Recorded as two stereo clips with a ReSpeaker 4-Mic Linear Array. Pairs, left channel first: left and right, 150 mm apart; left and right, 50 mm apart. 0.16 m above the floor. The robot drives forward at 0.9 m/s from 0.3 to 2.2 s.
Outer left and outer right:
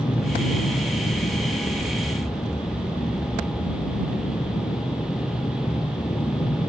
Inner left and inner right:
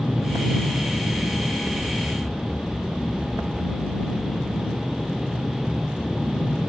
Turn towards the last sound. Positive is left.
turn(degrees=40)  # may be behind; listen again after turning